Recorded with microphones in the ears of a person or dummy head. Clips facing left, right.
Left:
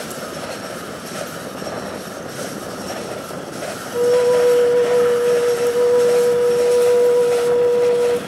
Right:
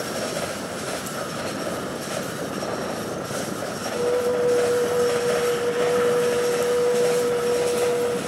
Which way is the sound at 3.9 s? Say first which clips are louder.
Left 8 dB; 65° left (ahead or behind).